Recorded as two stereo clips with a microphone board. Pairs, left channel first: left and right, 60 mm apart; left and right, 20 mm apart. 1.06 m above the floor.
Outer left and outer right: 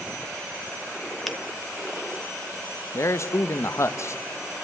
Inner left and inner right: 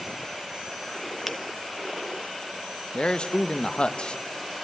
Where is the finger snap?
Centre (ahead or behind), 1.1 m.